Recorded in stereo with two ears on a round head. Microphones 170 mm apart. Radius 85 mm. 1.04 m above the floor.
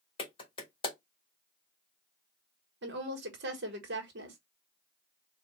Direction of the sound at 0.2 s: 30° left (ahead or behind).